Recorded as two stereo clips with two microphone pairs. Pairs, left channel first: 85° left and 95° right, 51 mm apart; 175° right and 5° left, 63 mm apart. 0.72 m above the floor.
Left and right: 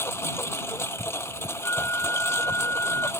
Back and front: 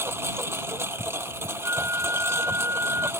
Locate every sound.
0.0 s a lawn mower: 55° left
1.6 s a flute: 55° left